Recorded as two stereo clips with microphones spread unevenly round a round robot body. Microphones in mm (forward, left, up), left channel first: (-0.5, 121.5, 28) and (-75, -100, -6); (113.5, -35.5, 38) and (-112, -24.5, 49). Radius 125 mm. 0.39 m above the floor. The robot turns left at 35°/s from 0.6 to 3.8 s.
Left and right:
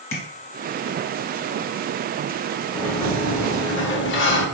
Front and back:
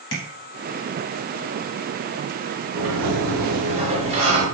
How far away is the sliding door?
About 0.8 m.